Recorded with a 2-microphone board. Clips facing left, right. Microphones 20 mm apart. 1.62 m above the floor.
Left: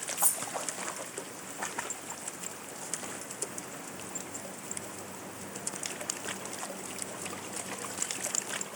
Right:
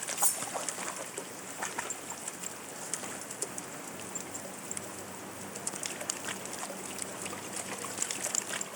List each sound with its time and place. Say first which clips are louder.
0.2 s cutlery clinking: even; 35° right (ahead or behind), 1.6 m